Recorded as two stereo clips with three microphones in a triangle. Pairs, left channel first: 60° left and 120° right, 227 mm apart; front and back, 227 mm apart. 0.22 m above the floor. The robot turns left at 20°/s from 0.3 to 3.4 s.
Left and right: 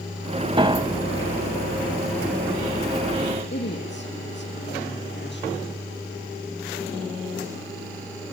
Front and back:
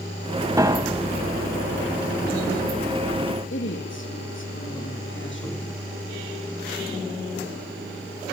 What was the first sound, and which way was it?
A piano, 130° right.